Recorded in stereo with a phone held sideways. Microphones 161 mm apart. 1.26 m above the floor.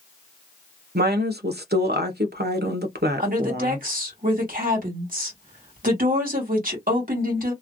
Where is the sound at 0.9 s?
85° right, 0.9 m.